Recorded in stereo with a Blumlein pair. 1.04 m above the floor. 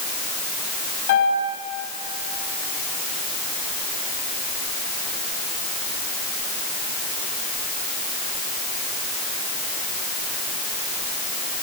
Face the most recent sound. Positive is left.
turn(degrees=55)